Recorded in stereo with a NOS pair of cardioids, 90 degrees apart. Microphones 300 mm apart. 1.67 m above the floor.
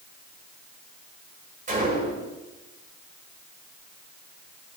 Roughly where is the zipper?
No zipper in this recording.